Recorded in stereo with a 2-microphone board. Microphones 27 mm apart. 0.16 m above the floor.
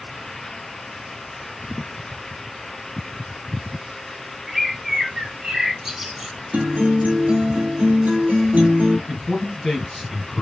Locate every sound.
4.5 s a bird: 15° right (ahead or behind), 0.6 m
6.5 s a guitar: 80° right, 1.0 m
9.1 s a man speaking: 20° left (ahead or behind), 1.3 m